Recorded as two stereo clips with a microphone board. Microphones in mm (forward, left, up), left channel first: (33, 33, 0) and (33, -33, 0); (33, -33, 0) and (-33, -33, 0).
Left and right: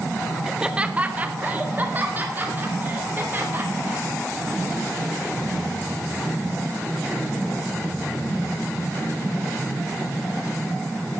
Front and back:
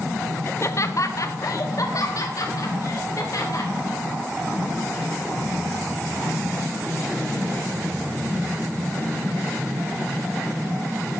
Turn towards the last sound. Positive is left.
turn(degrees=-30)